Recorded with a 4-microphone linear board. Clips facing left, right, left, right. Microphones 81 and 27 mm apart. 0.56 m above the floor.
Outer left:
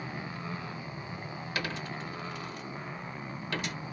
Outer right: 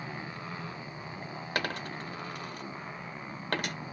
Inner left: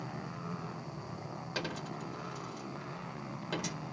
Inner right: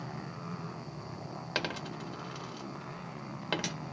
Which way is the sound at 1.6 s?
45° right (ahead or behind).